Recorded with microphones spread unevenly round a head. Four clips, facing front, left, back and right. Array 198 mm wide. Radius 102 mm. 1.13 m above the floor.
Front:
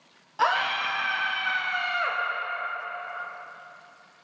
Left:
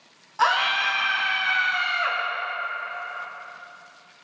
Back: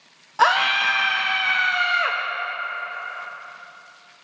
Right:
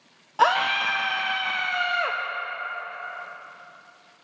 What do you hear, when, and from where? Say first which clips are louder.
0.4 s a scream: right 1 dB, back 6 dB; 105° right, 0.8 m